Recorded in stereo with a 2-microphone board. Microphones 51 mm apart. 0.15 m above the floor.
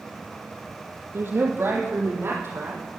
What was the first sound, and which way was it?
A woman speaking, 45° right (ahead or behind).